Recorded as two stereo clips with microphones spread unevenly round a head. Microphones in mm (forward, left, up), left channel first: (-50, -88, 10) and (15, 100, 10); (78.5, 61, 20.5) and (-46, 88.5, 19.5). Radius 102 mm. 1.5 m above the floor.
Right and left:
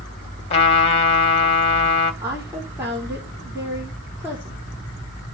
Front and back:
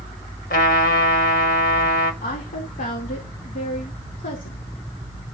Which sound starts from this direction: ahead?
A woman speaking, at 2.2 s.